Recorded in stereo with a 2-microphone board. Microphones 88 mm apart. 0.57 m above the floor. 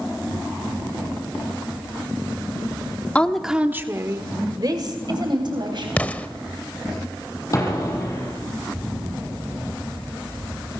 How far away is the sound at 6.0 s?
About 0.8 m.